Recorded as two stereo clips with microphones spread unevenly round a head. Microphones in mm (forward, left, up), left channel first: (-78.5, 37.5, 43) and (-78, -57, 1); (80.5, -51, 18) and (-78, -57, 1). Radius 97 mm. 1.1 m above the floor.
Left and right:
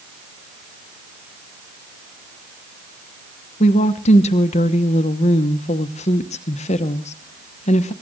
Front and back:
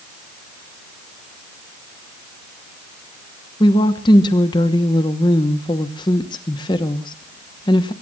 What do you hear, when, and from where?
3.6 s a woman speaking: 70° left, 1.0 m